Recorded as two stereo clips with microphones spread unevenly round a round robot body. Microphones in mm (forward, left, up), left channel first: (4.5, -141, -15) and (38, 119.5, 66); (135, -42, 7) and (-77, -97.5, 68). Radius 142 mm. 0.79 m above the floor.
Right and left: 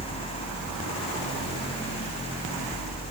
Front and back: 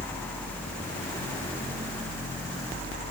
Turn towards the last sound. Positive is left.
No sound to turn to.